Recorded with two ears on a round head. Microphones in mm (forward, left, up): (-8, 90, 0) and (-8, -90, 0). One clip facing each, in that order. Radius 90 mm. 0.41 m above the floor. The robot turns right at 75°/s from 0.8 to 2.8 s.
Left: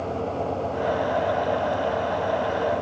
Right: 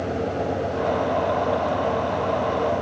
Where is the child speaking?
No child speaking in this recording.